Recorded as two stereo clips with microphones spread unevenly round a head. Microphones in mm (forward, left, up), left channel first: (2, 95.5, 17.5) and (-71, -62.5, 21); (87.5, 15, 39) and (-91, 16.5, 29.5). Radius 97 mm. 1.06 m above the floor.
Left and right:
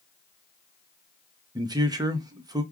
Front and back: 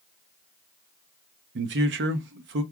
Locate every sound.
1.6 s a man speaking: 175° left, 0.8 m